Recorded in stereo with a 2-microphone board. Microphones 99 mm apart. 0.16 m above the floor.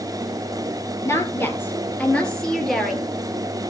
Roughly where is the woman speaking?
Left.